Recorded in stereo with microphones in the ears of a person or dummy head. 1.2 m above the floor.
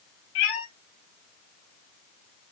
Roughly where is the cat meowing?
Left.